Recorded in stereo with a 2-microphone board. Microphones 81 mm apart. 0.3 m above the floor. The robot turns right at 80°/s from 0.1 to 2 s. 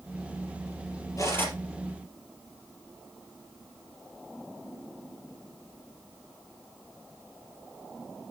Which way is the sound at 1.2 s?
135° left.